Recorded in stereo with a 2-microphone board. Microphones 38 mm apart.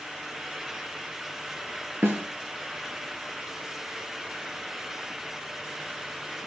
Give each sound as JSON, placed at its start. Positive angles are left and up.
{"t": 2.0, "sound": "a snare drum", "side_deg": -70, "distance_m": 5.0}